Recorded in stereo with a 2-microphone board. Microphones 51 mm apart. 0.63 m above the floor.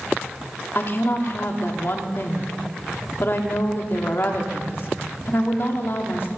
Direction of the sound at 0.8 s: 50° left (ahead or behind).